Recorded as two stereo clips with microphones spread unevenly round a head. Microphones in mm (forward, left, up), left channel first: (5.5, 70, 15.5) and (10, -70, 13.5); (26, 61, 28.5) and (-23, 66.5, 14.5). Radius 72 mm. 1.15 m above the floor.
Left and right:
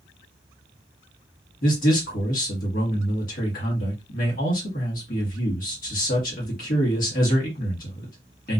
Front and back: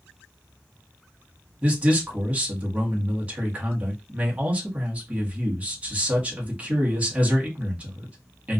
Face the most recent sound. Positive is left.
turn(degrees=120)